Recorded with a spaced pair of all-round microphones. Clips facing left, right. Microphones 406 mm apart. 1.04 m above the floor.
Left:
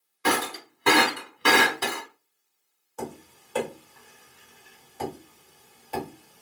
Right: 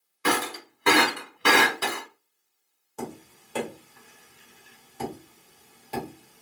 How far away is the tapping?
About 1.5 m.